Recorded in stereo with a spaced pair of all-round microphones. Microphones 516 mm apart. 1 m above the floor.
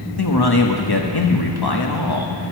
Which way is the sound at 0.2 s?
45° left (ahead or behind).